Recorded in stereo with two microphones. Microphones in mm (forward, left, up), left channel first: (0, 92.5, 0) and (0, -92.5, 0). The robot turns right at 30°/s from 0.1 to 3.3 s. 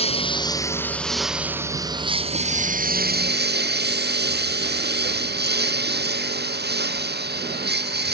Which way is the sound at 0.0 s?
150° left.